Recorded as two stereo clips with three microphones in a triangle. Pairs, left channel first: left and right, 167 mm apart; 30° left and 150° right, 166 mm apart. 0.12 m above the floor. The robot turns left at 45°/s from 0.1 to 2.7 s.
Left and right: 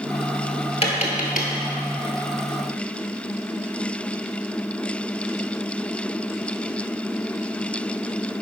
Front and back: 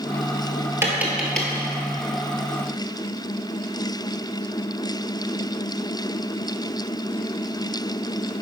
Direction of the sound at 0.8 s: 140° left.